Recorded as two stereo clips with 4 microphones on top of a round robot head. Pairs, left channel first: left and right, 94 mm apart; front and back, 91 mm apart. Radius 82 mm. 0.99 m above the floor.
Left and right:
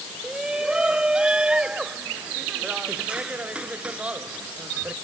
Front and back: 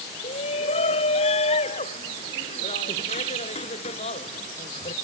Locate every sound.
0.2 s a shout: 10° right; by 5.0 s 15° right